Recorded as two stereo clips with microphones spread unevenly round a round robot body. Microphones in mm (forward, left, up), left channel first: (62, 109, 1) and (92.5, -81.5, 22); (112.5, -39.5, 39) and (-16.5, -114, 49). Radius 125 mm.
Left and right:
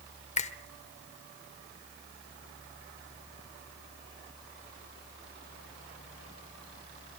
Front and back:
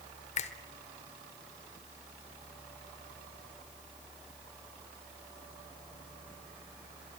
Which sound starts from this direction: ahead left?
A finger snap, at 0.4 s.